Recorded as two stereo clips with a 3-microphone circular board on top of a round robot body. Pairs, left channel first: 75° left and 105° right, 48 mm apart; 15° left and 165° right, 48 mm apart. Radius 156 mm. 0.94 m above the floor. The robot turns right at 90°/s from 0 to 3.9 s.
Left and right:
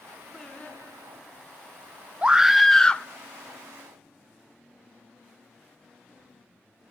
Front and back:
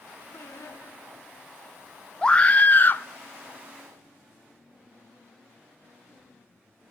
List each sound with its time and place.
0.3 s singing: 10° right, 1.8 m; by 1.5 s 95° left, 1.8 m
2.2 s a scream: 50° right, 1.0 m; by 3.0 s 25° left, 1.0 m